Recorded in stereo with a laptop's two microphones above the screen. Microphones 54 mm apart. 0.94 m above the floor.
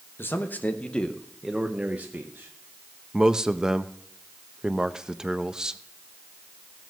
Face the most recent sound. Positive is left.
turn(degrees=-15)  # may be behind; listen again after turning